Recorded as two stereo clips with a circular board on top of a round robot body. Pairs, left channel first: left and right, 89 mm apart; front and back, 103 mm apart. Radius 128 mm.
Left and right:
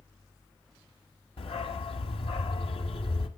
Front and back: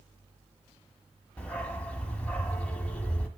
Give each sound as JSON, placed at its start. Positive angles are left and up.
{"t": 1.4, "sound": "a dog barking", "azimuth_deg": 80, "distance_m": 1.2}